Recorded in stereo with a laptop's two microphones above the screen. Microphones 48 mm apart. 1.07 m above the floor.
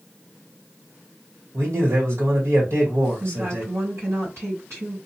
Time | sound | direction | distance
1.5 | a man speaking | 65° right (ahead or behind) | 1.8 m
3.2 | a woman speaking | 75° right (ahead or behind) | 1.9 m